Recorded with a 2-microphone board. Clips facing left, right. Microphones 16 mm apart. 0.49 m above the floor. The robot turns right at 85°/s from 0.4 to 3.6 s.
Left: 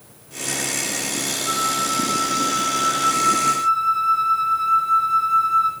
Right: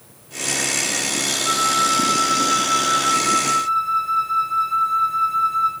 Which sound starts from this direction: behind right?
A flute, at 1.4 s.